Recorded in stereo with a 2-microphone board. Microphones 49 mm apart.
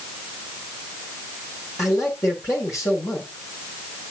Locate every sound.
1.8 s a man speaking: 80° left, 7 m